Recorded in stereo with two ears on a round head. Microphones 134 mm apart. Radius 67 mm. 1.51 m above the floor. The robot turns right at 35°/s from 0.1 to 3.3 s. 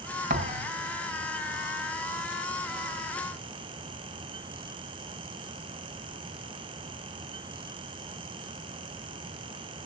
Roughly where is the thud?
Right.